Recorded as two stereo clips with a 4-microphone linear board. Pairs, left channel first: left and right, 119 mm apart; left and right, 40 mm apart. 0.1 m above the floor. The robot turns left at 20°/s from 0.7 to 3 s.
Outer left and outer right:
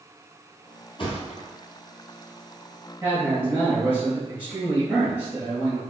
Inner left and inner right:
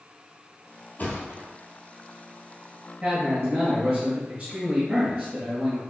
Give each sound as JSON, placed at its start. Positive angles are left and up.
{"t": 1.0, "sound": "a thud", "side_deg": 50, "distance_m": 1.2}
{"t": 3.0, "sound": "a man speaking", "side_deg": -15, "distance_m": 1.9}